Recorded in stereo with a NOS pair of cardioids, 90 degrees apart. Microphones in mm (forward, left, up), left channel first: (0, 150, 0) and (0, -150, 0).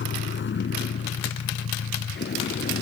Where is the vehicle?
40° left; by 2.8 s 35° left.